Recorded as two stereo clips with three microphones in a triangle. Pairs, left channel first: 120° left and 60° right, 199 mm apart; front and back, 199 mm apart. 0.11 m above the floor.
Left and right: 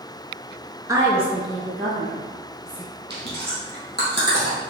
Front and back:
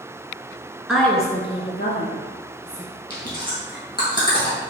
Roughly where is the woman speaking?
Right.